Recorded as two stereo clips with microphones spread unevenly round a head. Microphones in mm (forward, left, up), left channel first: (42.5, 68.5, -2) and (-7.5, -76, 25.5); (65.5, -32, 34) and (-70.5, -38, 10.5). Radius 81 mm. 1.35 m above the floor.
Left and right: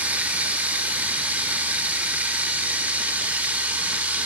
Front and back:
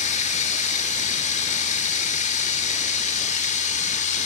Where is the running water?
30° right, 3.5 m.